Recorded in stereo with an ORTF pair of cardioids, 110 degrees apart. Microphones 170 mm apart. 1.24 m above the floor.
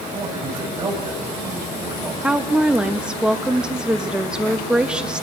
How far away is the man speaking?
About 8.5 m.